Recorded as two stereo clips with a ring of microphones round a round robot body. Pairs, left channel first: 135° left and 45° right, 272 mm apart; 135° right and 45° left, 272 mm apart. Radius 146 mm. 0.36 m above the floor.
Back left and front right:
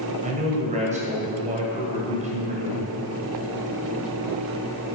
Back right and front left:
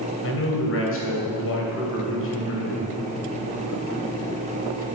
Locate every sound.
0.2 s a man speaking: 105° right, 2.5 m